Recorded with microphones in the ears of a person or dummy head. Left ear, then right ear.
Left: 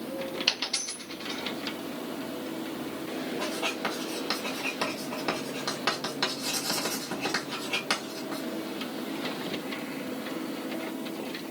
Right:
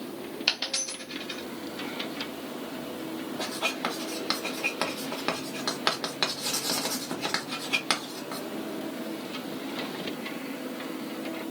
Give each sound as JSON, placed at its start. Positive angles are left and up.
{"t": 0.5, "sound": "a dropped coin", "side_deg": 0, "distance_m": 1.6}
{"t": 3.4, "sound": "writing", "side_deg": -25, "distance_m": 1.2}